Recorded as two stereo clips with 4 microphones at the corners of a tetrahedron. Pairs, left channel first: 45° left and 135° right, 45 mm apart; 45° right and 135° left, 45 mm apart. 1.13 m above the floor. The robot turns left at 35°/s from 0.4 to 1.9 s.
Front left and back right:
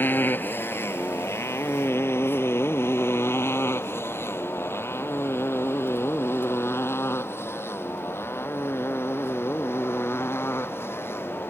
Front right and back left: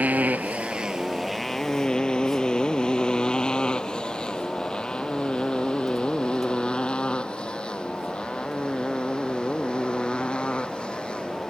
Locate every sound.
0.0 s a motorcycle: 80° left; by 11.5 s 25° left